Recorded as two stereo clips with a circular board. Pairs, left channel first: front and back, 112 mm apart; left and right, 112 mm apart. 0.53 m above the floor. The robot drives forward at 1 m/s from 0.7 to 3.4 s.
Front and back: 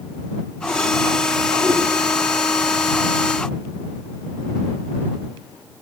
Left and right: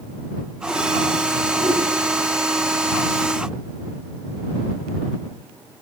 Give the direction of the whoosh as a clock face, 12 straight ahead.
4 o'clock.